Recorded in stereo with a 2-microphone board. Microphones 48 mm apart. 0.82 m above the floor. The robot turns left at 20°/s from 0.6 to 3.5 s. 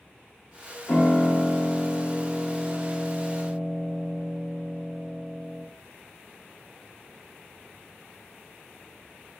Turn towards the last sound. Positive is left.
turn(degrees=-10)